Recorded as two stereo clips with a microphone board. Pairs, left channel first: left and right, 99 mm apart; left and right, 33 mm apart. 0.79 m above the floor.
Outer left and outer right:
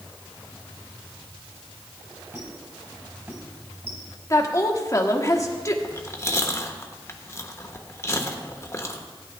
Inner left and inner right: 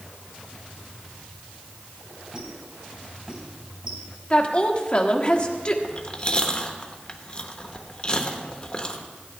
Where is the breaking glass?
I don't hear breaking glass.